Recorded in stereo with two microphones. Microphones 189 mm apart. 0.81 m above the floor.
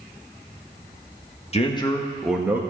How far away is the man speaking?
About 1.2 m.